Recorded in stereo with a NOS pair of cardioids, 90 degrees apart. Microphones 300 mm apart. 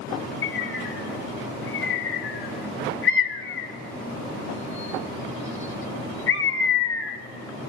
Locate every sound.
0.4 s a bird: 45° left, 1.1 m